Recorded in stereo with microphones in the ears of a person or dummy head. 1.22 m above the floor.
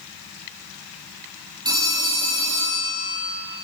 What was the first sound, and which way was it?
A phone ringing, 25° right (ahead or behind).